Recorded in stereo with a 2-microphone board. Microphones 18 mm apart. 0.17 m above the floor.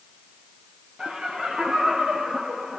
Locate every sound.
1.0 s laughter: 55° right (ahead or behind), 4.5 m; by 2.8 s 70° right (ahead or behind), 4.5 m